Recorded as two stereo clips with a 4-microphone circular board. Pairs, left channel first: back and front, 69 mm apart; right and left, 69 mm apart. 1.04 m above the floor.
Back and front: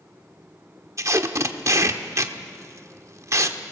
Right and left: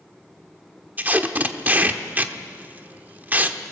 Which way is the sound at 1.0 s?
30° left.